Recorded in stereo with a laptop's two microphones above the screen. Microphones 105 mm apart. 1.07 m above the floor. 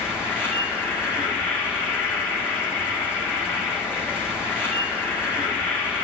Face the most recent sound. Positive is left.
turn(degrees=20)  # may be behind; listen again after turning